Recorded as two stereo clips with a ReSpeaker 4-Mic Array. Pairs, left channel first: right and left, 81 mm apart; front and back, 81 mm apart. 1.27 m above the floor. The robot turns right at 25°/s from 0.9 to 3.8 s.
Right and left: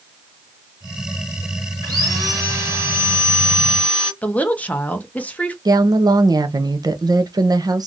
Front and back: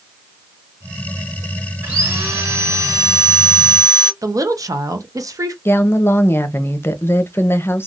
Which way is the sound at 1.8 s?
115° left.